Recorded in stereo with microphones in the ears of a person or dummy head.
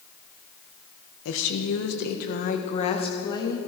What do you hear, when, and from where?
1.2 s a woman speaking: 90° left, 1.7 m; by 3.6 s 20° left (ahead or behind), 2 m